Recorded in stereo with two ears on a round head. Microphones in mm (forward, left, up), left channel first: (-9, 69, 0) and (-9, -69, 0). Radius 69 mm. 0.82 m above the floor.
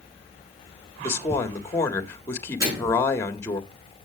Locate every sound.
1.0 s a woman speaking: 20° left (ahead or behind), 1.6 m
2.6 s a microwave: 20° right (ahead or behind), 8 m